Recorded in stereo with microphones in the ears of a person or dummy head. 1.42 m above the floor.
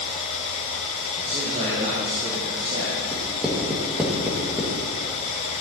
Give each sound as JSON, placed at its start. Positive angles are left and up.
{"t": 0.0, "sound": "running water", "side_deg": 35, "distance_m": 2.5}
{"t": 1.1, "sound": "a man speaking", "side_deg": -35, "distance_m": 1.9}
{"t": 3.1, "sound": "writing", "side_deg": -5, "distance_m": 1.4}